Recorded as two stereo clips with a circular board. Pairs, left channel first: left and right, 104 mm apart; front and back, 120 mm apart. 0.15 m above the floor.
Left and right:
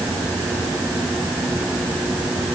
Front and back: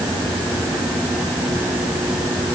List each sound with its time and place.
Only background noise.